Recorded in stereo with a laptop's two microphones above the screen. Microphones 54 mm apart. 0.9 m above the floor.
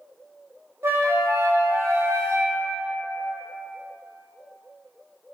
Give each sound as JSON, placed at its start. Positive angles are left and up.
{"t": 0.8, "sound": "a flute", "side_deg": -50, "distance_m": 0.5}